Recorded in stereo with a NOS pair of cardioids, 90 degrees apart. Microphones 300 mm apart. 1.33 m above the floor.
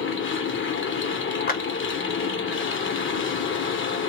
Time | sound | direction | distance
0.0 | a machine running | 40° left | 0.9 m
1.5 | a clap | 25° left | 0.9 m